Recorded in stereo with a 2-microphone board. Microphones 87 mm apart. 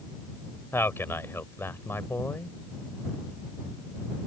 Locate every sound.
0.7 s a man speaking: 30° left (ahead or behind)